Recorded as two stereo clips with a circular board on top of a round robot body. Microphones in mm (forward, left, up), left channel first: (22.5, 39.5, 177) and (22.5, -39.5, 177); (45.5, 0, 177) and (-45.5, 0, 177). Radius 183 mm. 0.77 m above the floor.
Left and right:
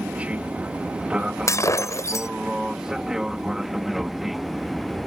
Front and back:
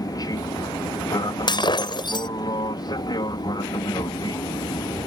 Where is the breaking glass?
40° left.